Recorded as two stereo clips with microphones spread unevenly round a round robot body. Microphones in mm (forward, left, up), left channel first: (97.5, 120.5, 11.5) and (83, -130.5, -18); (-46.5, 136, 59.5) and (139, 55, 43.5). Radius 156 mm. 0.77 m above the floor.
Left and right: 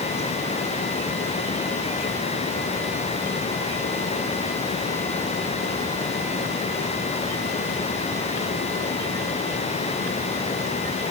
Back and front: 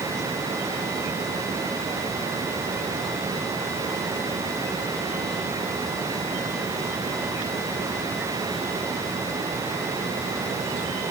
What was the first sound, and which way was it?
Only background noise.